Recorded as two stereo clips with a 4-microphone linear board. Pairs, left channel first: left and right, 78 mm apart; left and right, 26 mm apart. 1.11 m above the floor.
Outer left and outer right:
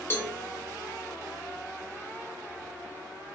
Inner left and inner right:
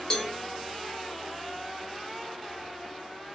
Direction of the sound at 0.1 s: 30° left (ahead or behind).